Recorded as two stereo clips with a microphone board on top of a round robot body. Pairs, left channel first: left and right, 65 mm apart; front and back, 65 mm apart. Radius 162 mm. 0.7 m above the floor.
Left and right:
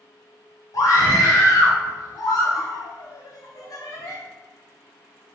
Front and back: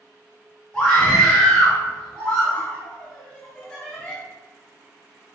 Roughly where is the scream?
Left.